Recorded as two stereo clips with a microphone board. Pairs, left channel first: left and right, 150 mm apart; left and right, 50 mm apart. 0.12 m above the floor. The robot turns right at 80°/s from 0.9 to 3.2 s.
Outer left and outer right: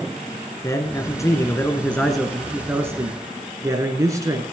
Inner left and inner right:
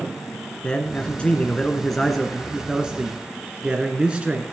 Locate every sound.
0.6 s a man speaking: 20° left (ahead or behind), 1.3 m; by 4.4 s 20° right (ahead or behind), 1.3 m